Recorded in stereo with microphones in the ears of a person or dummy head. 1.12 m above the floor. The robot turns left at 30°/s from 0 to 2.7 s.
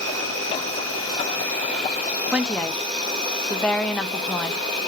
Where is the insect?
70° right, 3 m; by 4.9 s 150° right, 3 m.